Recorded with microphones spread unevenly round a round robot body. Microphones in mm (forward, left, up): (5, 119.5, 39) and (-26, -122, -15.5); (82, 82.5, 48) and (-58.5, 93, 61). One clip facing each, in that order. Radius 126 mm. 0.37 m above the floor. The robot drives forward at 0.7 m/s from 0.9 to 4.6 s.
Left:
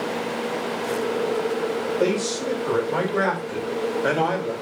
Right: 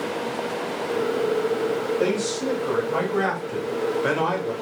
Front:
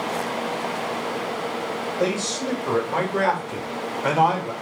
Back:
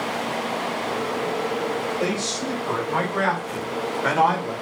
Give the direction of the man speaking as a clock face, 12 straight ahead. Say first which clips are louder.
Left 1 dB, front 1 dB; 12 o'clock.